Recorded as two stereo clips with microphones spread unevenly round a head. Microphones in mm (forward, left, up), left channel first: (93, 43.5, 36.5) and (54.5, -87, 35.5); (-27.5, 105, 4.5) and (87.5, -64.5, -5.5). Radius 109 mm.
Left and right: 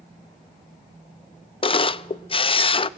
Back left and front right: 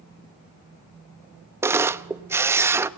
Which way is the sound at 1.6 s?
25° left.